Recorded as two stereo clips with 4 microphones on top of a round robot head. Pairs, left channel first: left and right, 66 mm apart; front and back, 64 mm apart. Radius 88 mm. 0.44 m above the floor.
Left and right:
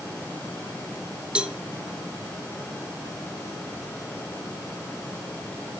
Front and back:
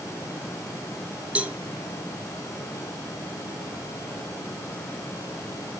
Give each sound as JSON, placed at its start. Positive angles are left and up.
{"t": 1.4, "sound": "a cowbell", "azimuth_deg": -145, "distance_m": 0.9}